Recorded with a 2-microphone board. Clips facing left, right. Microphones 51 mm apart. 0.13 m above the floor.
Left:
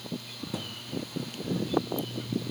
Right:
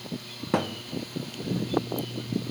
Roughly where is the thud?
Right.